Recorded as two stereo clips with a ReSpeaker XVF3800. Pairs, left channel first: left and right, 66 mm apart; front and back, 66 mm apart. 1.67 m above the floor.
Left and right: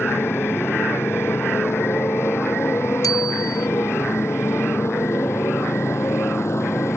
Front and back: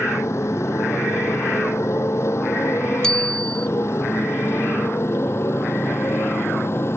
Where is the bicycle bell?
75° left.